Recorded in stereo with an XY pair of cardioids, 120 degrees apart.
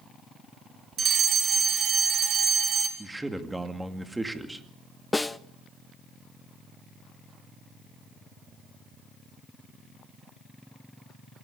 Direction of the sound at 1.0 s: 45° right.